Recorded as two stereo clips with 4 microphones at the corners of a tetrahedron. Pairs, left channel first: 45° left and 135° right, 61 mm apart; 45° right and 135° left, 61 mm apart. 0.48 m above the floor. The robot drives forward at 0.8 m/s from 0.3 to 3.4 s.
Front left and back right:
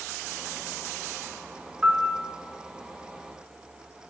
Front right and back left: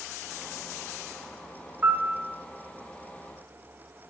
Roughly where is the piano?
Behind.